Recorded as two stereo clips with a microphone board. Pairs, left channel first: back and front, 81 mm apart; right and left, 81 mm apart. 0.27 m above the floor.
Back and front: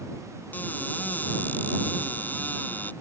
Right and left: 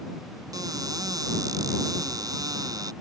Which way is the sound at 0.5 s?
115° left.